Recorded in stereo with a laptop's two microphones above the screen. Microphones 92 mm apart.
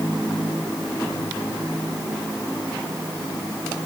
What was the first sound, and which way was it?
Only background noise.